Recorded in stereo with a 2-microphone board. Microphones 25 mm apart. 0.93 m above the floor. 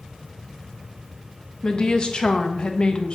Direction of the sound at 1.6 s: 40° left (ahead or behind).